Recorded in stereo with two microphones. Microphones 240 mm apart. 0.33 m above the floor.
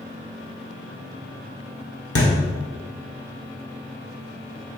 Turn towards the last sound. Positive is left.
turn(degrees=80)